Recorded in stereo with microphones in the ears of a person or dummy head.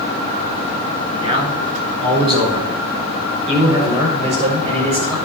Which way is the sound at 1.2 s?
35° right (ahead or behind).